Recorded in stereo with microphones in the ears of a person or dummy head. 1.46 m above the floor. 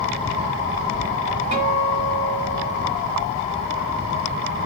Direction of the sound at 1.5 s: 35° right (ahead or behind).